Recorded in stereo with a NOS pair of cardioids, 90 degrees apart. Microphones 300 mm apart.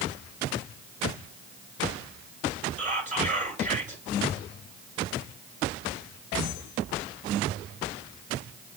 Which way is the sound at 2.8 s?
25° right.